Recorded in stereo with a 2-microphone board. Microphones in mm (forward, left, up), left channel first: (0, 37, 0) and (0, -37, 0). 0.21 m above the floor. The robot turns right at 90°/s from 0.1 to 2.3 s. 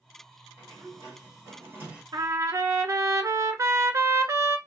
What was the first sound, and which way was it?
A sliding door, 140° right.